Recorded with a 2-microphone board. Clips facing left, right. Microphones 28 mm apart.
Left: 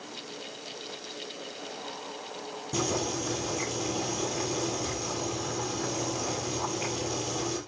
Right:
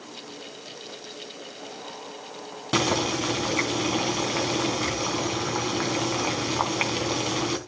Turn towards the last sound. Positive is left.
turn(degrees=-70)  # may be behind; listen again after turning